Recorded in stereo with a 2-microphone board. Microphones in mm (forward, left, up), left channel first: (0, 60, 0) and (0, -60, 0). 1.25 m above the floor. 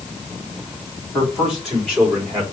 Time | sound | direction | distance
1.1 | a man speaking | centre (ahead or behind) | 3 m